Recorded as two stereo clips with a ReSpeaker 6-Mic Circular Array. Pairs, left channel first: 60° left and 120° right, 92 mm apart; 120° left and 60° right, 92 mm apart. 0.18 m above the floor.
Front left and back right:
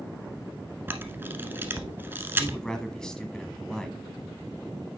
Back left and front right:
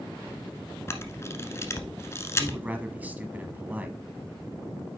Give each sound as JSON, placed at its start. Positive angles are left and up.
{"t": 0.9, "sound": "a camera shutter", "azimuth_deg": 175, "distance_m": 1.0}
{"t": 2.4, "sound": "a man speaking", "azimuth_deg": -15, "distance_m": 1.1}